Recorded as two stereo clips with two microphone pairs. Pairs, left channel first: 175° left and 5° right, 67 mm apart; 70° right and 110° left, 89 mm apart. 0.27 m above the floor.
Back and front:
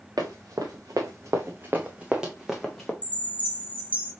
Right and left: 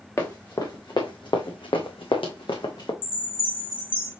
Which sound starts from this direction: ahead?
Running footsteps, at 0.2 s.